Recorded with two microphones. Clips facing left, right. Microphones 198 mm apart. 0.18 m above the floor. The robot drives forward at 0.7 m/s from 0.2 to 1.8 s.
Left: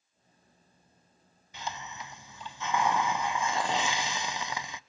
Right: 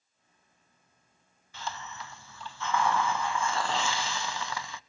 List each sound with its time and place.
1.5 s a hiss: 20° left (ahead or behind), 0.5 m